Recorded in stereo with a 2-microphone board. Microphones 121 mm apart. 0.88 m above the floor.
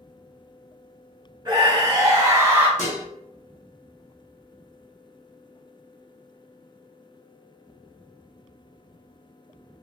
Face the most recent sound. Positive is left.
turn(degrees=85)